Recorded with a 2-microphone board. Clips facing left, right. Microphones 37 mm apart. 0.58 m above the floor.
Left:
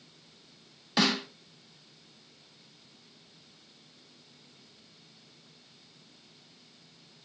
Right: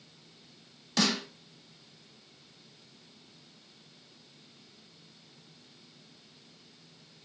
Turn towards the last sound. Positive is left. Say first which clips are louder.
# left 2 dB
turn(degrees=20)  # may be behind; listen again after turning